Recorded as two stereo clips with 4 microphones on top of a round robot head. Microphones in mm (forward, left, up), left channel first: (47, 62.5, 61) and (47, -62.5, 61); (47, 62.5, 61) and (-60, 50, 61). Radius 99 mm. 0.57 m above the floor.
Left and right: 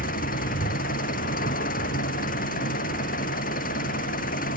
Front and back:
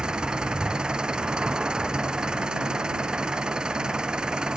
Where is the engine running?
105° left.